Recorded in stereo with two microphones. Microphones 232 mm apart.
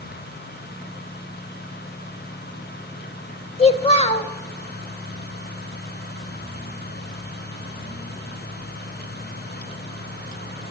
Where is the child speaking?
25° left (ahead or behind), 0.6 m.